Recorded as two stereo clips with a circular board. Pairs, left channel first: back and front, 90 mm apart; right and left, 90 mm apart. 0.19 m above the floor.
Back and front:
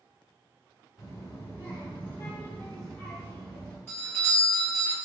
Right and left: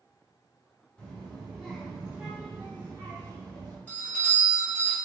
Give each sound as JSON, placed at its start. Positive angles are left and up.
{"t": 1.0, "sound": "a child speaking", "azimuth_deg": -160, "distance_m": 1.4}
{"t": 3.9, "sound": "a doorbell", "azimuth_deg": -135, "distance_m": 1.9}